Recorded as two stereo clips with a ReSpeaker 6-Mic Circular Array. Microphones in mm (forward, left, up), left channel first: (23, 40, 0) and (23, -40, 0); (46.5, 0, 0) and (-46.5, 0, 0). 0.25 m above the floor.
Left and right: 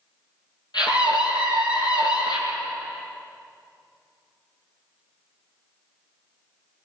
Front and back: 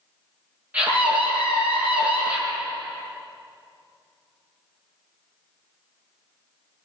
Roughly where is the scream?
Left.